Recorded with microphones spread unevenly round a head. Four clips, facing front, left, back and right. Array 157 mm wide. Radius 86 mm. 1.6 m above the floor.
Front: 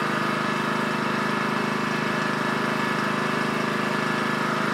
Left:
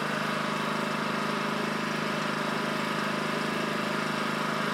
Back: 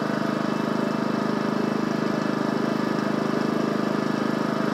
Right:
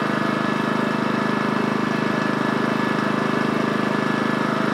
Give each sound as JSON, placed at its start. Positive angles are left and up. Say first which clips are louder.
{"t": 0.0, "sound": "an engine running", "louder": "right 9 dB, even", "azimuth_deg": -110, "distance_m": 0.9}